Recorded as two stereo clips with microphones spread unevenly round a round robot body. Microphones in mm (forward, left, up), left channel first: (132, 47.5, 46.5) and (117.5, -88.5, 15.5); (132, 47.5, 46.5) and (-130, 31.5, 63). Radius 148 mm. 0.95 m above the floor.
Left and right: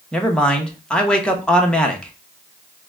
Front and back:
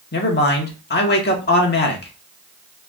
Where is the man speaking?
10° right, 1.1 m.